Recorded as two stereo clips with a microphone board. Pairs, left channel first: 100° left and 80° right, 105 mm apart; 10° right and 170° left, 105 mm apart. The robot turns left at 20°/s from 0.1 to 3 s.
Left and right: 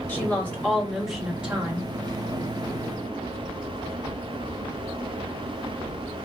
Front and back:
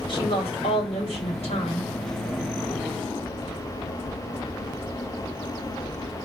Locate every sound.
0.1 s a woman speaking: 30° left, 3.5 m; by 1.9 s 5° right, 3.5 m